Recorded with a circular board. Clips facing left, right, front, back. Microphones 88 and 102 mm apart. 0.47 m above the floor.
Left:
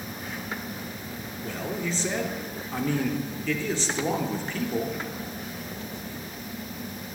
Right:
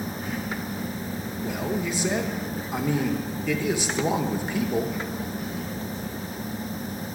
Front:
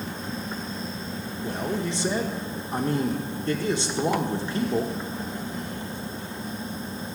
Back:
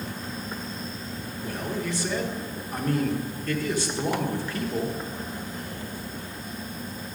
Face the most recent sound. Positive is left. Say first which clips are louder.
# right 3 dB, front 2 dB
turn(degrees=-25)